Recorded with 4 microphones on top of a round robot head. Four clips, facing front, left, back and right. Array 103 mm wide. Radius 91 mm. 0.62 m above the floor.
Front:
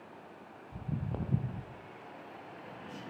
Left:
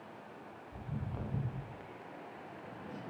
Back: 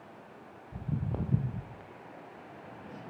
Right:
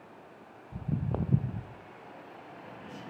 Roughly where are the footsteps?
Right.